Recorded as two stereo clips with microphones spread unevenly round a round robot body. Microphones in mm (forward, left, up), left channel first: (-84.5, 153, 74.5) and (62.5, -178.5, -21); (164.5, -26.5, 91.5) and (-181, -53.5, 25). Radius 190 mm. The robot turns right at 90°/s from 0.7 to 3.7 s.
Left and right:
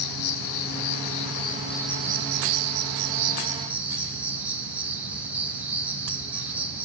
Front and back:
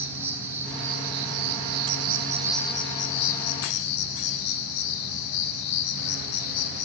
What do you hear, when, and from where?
0.0 s an insect: 105° left, 0.9 m; by 6.8 s 15° left, 0.9 m